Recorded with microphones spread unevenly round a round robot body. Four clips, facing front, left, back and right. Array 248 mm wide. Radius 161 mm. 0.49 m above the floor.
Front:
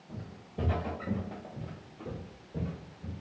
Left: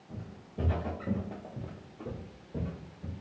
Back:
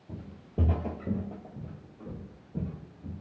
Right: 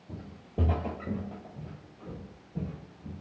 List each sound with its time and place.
0.1 s footsteps: 130° right, 1.0 m; by 3.1 s 85° left, 1.9 m